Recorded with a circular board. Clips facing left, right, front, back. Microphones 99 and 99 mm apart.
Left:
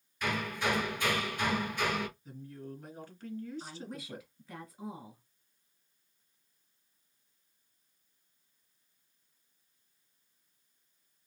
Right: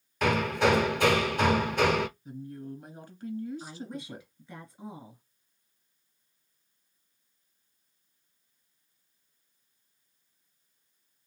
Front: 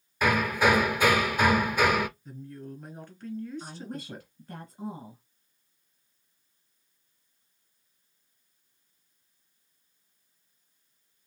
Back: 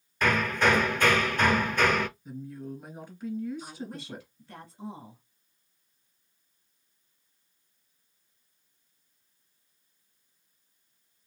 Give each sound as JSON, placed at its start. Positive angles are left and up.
{"t": 0.2, "sound": "hammering", "azimuth_deg": -80, "distance_m": 0.5}
{"t": 2.2, "sound": "a woman speaking", "azimuth_deg": -130, "distance_m": 1.6}
{"t": 3.6, "sound": "a woman speaking", "azimuth_deg": 5, "distance_m": 2.0}